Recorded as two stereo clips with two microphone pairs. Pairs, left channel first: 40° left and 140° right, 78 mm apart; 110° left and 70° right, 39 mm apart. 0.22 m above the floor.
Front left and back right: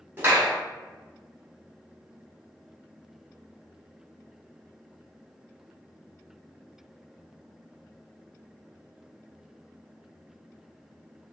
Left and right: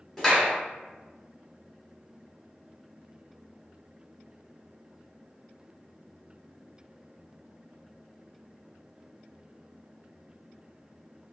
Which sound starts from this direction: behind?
A clap, at 0.2 s.